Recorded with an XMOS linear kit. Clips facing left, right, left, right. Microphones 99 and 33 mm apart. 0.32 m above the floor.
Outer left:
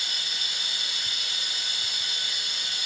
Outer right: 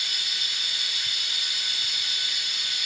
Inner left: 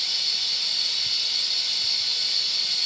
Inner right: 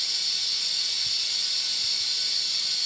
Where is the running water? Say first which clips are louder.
Even, inner left 3 dB; 30° left (ahead or behind), 0.8 m.